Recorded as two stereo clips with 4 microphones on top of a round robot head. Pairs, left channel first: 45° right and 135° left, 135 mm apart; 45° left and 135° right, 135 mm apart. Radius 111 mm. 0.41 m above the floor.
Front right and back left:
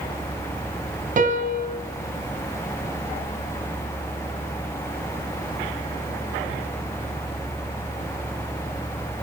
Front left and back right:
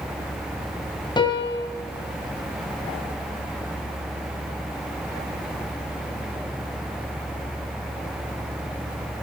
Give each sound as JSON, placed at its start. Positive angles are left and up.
{"t": 1.2, "sound": "a piano", "azimuth_deg": 105, "distance_m": 2.0}